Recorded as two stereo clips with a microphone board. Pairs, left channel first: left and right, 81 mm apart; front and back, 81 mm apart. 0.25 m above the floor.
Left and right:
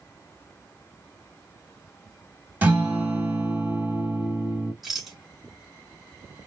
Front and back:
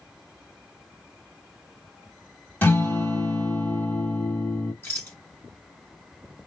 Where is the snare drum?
I don't hear a snare drum.